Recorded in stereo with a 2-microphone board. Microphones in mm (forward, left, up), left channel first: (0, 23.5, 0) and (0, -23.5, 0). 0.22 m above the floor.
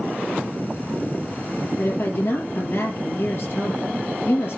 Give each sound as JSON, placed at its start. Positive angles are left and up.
{"t": 1.8, "sound": "a woman speaking", "side_deg": 55, "distance_m": 4.5}